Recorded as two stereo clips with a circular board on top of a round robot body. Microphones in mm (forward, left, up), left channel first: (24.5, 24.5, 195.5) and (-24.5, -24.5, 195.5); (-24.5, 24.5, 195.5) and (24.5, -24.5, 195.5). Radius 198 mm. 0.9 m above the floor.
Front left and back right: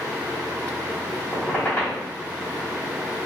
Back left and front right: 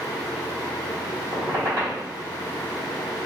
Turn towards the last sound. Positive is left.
turn(degrees=-25)